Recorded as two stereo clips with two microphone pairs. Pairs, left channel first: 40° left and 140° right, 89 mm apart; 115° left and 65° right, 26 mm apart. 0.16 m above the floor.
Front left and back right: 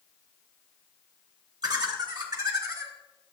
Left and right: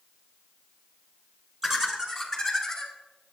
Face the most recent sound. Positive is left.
turn(degrees=-170)